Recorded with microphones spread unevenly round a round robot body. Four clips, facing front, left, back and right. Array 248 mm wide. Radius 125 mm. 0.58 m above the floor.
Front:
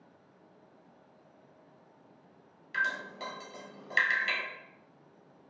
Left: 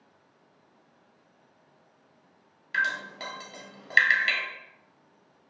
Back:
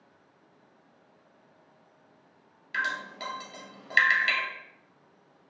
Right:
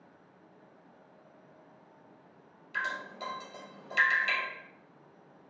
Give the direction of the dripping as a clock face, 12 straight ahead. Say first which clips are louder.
Left 6 dB, back 1 dB; 7 o'clock.